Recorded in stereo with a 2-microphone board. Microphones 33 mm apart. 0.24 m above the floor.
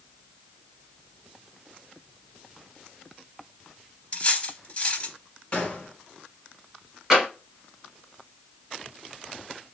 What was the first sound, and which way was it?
Cutlery clinking, 35° left (ahead or behind).